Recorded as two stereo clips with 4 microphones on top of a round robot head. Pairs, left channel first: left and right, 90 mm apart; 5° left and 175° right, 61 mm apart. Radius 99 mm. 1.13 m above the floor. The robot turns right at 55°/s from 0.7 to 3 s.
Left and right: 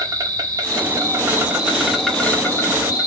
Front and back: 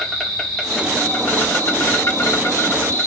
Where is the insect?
70° right, 1.4 m; by 3.1 s 55° left, 1.4 m.